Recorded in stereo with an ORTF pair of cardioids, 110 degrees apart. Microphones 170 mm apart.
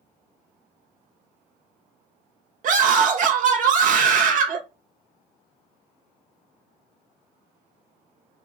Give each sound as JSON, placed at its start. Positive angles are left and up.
{"t": 2.6, "sound": "a scream", "azimuth_deg": -50, "distance_m": 1.7}